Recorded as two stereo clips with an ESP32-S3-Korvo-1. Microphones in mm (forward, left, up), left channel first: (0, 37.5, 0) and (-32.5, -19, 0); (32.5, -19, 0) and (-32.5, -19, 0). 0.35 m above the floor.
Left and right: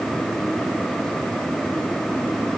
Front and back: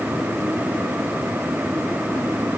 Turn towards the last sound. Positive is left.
No sound to turn to.